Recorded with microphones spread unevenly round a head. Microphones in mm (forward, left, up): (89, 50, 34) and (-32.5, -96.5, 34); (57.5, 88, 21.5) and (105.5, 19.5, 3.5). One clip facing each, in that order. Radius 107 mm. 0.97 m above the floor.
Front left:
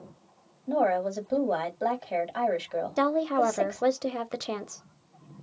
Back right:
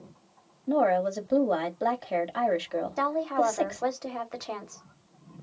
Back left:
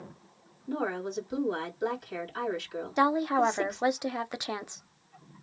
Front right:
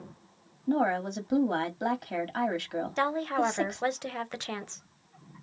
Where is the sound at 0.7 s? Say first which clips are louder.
Back right 2 dB, front right 5 dB; 45° right, 2.0 m.